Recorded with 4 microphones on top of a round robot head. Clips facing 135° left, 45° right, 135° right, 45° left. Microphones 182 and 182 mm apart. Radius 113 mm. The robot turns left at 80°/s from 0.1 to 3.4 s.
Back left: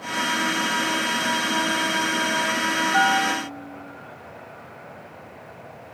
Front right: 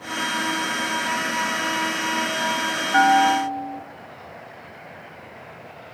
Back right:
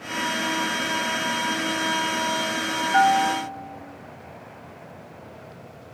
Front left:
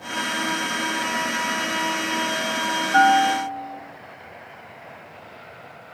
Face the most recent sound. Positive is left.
turn(degrees=-50)